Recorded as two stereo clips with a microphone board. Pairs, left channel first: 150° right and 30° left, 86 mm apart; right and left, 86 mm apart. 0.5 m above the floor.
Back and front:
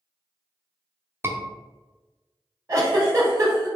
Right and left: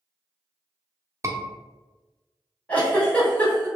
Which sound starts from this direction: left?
A scream, at 1.2 s.